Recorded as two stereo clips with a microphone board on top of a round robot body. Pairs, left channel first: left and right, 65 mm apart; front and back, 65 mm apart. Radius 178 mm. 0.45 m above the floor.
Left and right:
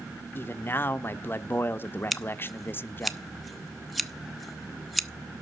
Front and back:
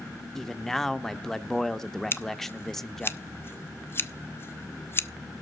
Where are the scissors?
Straight ahead, 1.1 m.